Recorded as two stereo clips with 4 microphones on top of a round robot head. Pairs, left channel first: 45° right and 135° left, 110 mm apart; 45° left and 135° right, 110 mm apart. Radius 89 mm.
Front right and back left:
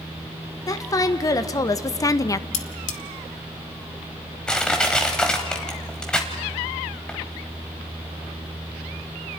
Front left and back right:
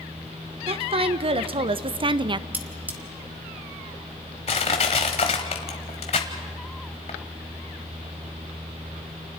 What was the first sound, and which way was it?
A woman speaking, 105° right.